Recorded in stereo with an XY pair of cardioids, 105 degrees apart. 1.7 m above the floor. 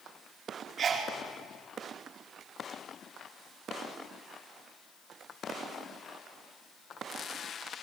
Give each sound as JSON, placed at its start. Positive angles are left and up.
{"t": 0.8, "sound": "a sneeze", "azimuth_deg": -45, "distance_m": 5.0}